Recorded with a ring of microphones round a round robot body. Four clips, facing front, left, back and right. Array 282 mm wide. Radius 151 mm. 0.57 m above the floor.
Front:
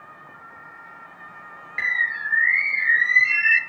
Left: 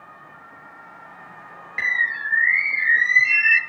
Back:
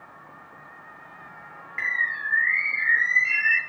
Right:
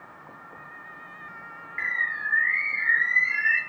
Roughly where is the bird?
Ahead left.